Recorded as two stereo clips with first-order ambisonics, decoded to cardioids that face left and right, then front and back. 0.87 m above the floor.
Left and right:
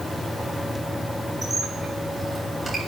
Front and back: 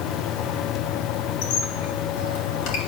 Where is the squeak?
10° right, 3 m.